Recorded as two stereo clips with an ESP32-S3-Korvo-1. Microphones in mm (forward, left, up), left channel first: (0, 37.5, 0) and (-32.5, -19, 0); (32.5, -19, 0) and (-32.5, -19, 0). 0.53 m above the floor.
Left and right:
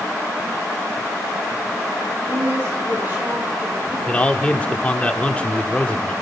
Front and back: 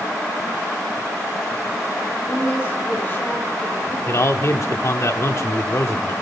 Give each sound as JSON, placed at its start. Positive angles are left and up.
{"t": 2.3, "sound": "a woman speaking", "azimuth_deg": -60, "distance_m": 6.0}
{"t": 4.1, "sound": "a man speaking", "azimuth_deg": 0, "distance_m": 1.1}